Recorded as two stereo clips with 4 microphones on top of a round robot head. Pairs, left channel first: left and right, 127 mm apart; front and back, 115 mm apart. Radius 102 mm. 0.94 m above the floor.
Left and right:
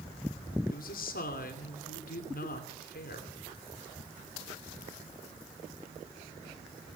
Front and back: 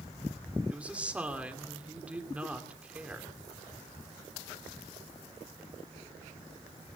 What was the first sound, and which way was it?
A woman speaking, 105° left.